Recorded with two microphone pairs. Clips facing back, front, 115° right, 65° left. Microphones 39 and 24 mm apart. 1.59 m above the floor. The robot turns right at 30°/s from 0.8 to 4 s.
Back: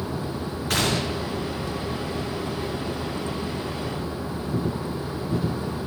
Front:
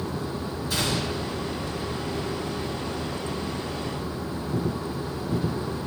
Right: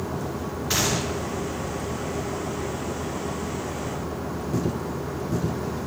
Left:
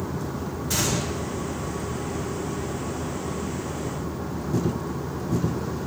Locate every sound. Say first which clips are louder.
0.7 s a gunshot: back 3 dB, right 2 dB; 165° right, 1.2 m; by 1.4 s 145° right, 1.2 m